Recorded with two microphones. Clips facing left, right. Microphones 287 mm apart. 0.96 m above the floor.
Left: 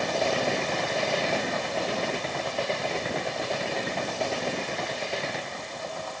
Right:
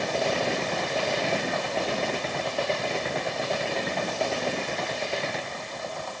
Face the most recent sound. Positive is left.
No sound to turn to.